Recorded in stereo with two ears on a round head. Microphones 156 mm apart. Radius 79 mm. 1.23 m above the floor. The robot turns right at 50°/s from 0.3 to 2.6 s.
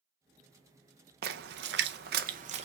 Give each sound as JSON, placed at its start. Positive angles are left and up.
{"t": 1.2, "sound": "a splash", "side_deg": -60, "distance_m": 0.5}